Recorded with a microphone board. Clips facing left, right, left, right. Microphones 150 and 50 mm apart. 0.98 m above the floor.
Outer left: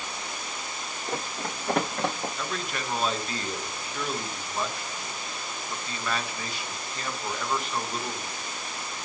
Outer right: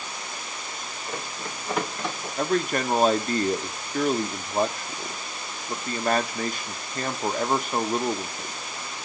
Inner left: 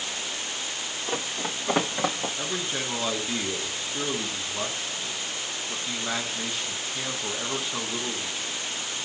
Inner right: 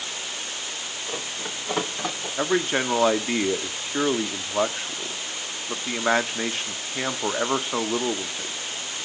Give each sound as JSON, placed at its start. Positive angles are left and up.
{"t": 1.1, "sound": "running footsteps", "side_deg": 75, "distance_m": 3.0}
{"t": 2.4, "sound": "a man speaking", "side_deg": -50, "distance_m": 0.7}